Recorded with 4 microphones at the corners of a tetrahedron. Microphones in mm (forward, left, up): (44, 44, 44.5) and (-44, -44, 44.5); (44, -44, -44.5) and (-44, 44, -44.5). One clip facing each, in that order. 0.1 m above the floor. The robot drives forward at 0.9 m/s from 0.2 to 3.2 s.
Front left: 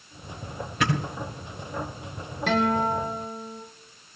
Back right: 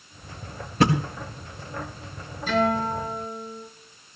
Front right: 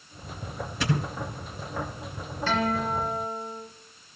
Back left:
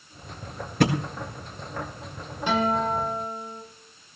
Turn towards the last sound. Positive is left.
turn(degrees=65)